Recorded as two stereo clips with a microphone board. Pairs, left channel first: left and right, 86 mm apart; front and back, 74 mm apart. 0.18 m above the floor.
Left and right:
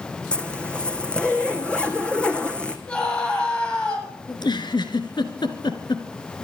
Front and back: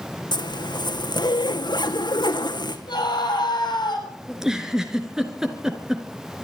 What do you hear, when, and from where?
0.3 s a zipper: 10° left, 2 m
2.9 s a scream: 20° left, 7 m
4.3 s a giggle: 100° left, 2.5 m